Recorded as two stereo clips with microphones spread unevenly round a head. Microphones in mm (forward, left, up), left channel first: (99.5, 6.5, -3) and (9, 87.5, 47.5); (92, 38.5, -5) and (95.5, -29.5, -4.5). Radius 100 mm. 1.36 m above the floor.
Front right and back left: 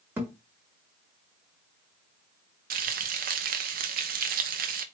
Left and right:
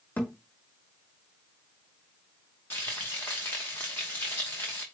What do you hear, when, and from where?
0.2 s a thud: 140° left, 1.2 m
2.7 s frying: 165° left, 0.6 m